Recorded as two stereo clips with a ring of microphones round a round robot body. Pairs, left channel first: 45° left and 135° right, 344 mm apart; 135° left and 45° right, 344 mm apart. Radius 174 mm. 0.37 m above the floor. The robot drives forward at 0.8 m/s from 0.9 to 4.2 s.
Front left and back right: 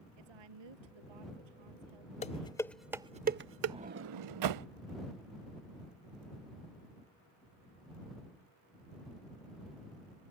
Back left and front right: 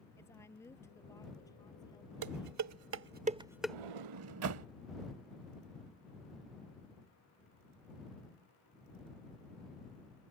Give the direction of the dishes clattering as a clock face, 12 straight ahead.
1 o'clock.